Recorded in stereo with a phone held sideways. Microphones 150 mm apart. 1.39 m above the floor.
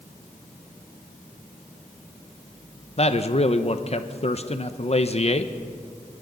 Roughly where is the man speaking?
Left.